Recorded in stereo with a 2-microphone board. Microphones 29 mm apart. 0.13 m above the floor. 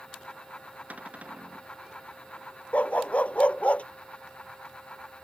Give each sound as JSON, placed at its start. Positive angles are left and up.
{"t": 0.9, "sound": "a cupboard door", "side_deg": -60}
{"t": 2.7, "sound": "a dog barking", "side_deg": 55}